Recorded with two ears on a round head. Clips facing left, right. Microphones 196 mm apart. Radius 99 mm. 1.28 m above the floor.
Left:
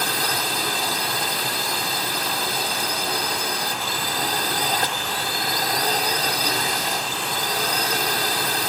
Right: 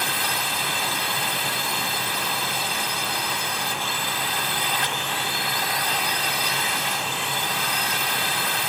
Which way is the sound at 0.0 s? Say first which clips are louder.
Left 3 dB; 35° left (ahead or behind).